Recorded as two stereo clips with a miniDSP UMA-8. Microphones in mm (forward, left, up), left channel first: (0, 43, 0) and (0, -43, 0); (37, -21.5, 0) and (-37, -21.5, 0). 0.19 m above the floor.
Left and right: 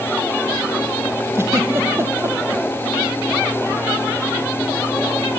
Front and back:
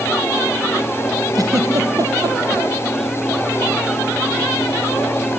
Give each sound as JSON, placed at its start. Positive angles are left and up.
{"t": 1.4, "sound": "a giggle", "azimuth_deg": -145, "distance_m": 2.5}